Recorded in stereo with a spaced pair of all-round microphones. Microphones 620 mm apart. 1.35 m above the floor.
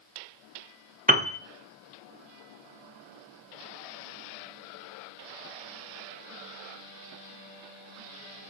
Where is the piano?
15° right (ahead or behind), 0.5 m.